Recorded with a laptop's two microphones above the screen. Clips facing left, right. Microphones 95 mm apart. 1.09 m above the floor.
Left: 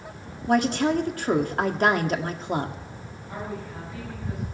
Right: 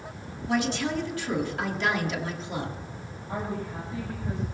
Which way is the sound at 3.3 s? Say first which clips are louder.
Right 2 dB; 30° right (ahead or behind).